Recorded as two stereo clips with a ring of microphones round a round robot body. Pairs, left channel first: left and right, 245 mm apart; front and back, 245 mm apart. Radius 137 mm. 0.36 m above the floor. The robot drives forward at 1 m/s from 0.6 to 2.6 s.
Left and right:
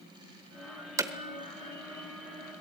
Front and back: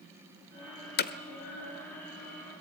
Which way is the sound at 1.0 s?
20° right.